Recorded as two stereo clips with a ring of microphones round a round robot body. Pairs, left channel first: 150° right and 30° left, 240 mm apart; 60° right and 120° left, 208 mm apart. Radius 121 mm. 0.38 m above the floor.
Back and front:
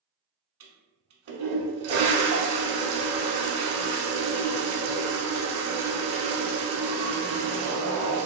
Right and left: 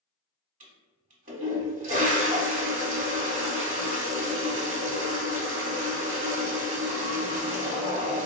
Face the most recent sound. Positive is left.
turn(degrees=65)